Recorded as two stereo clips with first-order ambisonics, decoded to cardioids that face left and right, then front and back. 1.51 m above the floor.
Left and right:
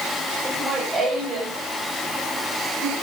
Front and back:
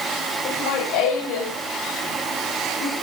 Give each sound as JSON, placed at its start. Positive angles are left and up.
{"t": 0.5, "sound": "laughter", "azimuth_deg": -20, "distance_m": 8.0}